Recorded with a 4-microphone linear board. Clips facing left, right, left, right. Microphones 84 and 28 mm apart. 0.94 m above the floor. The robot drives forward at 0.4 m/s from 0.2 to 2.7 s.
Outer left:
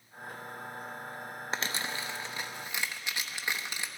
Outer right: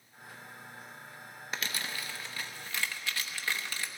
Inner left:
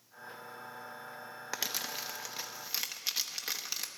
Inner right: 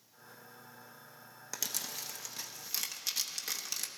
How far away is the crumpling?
About 0.6 m.